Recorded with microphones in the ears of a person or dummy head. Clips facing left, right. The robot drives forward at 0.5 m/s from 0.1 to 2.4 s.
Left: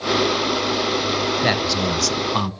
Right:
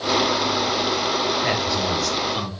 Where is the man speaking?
70° left (ahead or behind), 0.9 m; by 2.5 s 65° left (ahead or behind), 0.9 m.